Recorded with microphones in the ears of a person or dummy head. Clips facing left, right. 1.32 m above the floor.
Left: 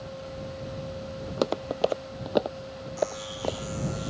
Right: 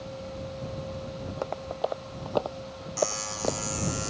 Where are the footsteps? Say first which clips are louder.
Left 8 dB; 55° left (ahead or behind); by 3.8 s 10° right (ahead or behind).